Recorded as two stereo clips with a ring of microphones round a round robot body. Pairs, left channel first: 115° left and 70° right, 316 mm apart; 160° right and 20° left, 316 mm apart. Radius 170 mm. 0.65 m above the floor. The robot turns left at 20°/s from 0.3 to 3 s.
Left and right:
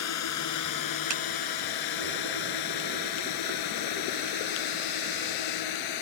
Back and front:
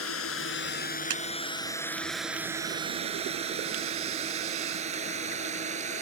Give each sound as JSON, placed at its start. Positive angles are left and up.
{"t": 0.0, "sound": "a drone", "azimuth_deg": 155}
{"t": 1.1, "sound": "a clap", "azimuth_deg": -30}